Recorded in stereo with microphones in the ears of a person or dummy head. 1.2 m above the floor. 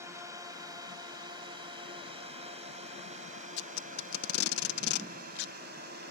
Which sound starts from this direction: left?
Tape being pulled, at 3.6 s.